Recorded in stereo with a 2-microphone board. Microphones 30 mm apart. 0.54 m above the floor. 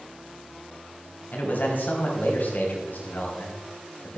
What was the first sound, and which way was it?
A man speaking, 75° left (ahead or behind).